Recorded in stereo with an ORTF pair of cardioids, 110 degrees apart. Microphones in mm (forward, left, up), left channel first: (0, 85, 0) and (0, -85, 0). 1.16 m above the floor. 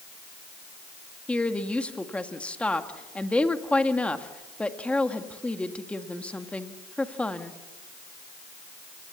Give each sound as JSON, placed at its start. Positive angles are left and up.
{"t": 1.3, "sound": "a woman speaking", "azimuth_deg": 5, "distance_m": 1.7}